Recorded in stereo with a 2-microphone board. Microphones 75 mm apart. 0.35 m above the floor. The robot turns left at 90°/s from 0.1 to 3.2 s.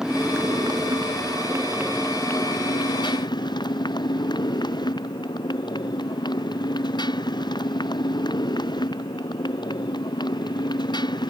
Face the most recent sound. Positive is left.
turn(degrees=70)